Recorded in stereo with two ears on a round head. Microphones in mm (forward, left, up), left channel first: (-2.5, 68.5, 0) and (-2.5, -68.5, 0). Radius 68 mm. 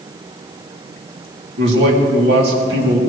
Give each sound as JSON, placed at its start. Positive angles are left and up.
{"t": 1.6, "sound": "a man speaking", "side_deg": -75, "distance_m": 3.5}